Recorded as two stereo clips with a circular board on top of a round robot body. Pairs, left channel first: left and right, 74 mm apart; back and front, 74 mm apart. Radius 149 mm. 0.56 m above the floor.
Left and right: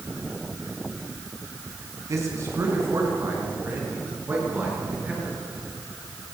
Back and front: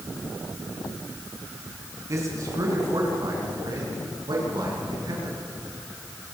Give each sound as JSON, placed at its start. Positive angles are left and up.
{"t": 2.1, "sound": "a man speaking", "azimuth_deg": -45, "distance_m": 5.5}